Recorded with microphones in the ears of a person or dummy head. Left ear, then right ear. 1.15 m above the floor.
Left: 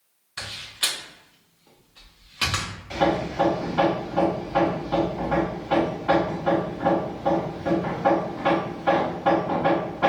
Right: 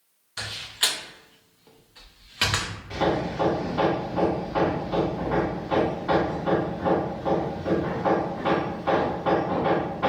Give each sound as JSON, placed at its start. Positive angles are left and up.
{"t": 0.4, "sound": "a door slam", "side_deg": -10, "distance_m": 0.6}
{"t": 2.9, "sound": "hammering", "side_deg": 25, "distance_m": 0.9}